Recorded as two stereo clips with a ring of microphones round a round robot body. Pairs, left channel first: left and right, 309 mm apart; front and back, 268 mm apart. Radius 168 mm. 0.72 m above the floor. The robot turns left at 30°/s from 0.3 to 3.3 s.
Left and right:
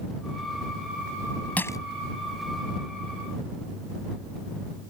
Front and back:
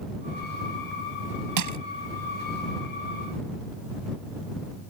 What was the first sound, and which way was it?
Crushing, 175° left.